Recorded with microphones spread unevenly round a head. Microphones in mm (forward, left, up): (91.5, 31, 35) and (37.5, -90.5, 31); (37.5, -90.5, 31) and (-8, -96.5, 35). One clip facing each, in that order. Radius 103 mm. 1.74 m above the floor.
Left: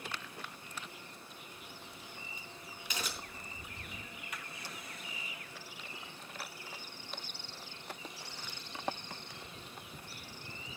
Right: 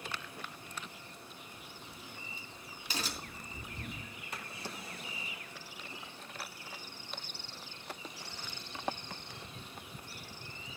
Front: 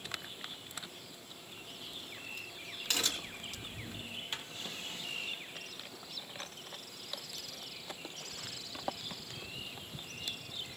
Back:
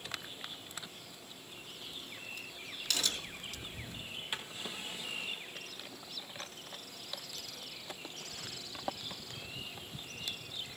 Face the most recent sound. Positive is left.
turn(degrees=-125)